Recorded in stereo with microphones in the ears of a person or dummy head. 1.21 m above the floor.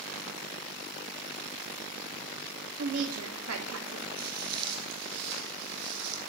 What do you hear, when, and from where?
2.8 s a woman speaking: 75° right (ahead or behind), 3 m
4.2 s footsteps: 55° right (ahead or behind), 2.5 m; by 6.2 s 65° right (ahead or behind), 3.5 m